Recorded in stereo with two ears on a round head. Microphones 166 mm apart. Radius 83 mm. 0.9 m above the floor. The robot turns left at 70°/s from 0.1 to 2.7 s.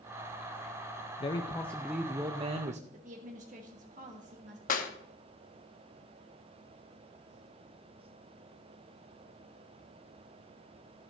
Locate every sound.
1.2 s a man speaking: 45° left, 0.6 m; by 2.8 s 60° right, 0.6 m
2.9 s a woman speaking: 40° right (ahead or behind), 1.3 m
4.7 s a clap: 45° left (ahead or behind), 1.1 m